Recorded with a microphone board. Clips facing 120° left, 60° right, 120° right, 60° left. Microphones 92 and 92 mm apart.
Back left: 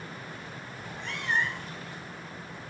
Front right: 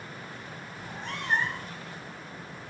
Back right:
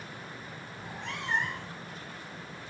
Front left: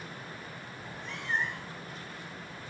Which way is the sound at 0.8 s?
110° right.